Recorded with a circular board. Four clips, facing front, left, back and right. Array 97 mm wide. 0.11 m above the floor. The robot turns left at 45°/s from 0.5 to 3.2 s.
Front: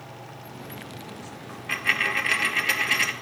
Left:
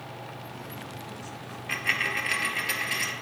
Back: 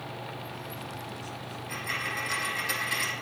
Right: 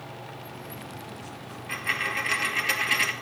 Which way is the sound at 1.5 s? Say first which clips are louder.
Left 1 dB, front 9 dB; 35° left.